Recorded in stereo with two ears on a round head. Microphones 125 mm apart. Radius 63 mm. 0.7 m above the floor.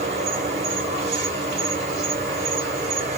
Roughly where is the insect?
Right.